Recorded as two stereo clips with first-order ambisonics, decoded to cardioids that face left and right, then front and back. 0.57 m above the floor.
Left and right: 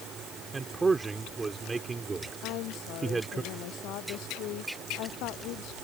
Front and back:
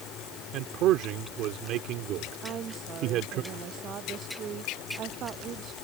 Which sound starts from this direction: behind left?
A woman speaking, at 2.4 s.